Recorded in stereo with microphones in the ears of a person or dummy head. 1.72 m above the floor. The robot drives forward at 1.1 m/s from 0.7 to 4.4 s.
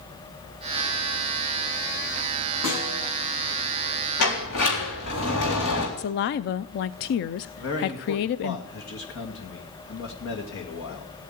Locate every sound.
2.6 s a snare drum: 70° left (ahead or behind), 9 m
4.2 s a sliding door: 65° left (ahead or behind), 4 m
6.0 s a woman speaking: 45° left (ahead or behind), 0.5 m
7.6 s a man speaking: 70° left (ahead or behind), 2.5 m